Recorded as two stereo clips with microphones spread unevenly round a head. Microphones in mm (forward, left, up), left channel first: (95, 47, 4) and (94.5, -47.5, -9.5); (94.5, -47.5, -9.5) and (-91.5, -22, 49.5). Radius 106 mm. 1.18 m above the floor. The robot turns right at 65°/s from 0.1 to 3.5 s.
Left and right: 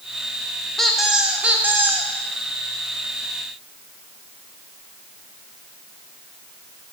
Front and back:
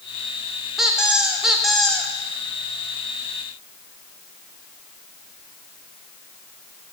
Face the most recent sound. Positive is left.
turn(degrees=-35)